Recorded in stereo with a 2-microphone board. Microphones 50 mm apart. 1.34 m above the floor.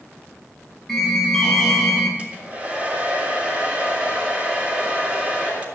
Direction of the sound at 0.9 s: 10° left (ahead or behind).